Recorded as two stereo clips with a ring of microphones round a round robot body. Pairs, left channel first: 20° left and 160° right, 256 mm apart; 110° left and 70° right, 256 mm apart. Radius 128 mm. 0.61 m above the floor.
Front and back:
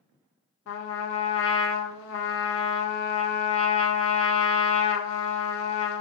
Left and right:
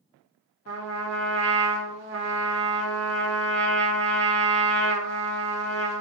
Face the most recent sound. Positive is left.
turn(degrees=-20)